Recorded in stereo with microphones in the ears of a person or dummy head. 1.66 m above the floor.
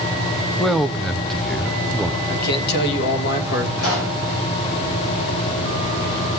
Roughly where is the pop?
Left.